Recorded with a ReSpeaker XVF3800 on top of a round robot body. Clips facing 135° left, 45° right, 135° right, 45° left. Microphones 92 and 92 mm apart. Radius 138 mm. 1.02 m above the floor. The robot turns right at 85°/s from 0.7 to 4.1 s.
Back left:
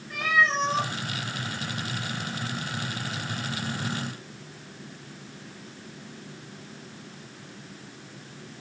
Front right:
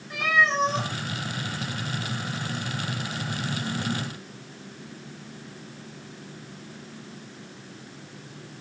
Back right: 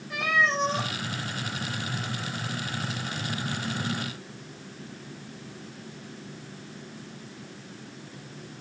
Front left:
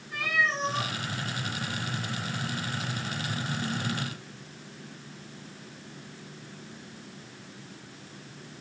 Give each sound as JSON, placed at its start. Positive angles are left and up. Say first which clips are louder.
{"t": 0.1, "sound": "a cat meowing", "louder": "front right 1 dB, back right 3 dB", "azimuth_deg": -120, "distance_m": 9.5}